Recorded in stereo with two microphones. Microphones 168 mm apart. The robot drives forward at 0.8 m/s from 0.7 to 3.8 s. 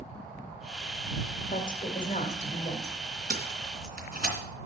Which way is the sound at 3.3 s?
65° right (ahead or behind).